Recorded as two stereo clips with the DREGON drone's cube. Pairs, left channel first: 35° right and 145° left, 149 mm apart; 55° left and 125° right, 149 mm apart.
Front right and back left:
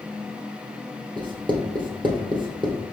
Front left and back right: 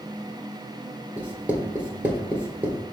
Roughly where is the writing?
Behind.